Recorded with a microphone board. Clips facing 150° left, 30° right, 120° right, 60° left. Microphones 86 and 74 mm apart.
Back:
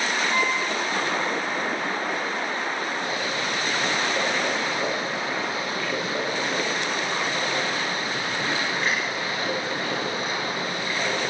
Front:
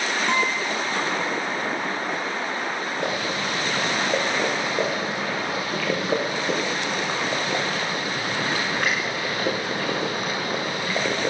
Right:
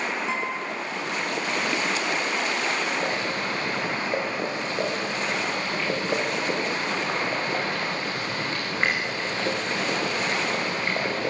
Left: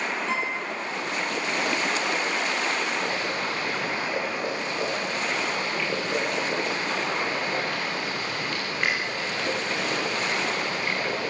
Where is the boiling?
60° right, 8 m.